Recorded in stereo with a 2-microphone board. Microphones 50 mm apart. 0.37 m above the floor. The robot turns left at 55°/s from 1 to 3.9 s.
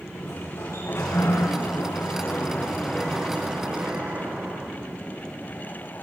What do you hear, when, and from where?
0.1 s a sliding door: 110° left, 8.5 m; by 4.7 s 50° right, 8.5 m